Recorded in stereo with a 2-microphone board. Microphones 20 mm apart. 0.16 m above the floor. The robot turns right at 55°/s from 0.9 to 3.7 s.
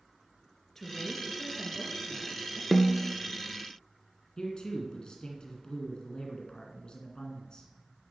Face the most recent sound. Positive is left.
turn(degrees=40)  # may be behind; listen again after turning